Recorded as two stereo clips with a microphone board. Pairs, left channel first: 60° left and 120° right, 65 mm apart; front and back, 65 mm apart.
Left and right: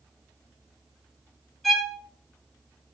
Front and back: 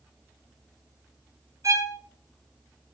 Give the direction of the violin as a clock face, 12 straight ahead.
7 o'clock.